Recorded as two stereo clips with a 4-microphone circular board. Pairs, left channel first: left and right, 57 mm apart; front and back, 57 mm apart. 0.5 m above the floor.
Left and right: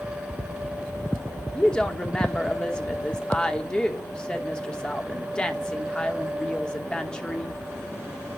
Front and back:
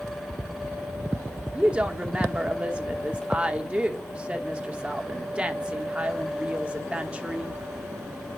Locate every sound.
1.6 s a woman speaking: 145° left, 1.0 m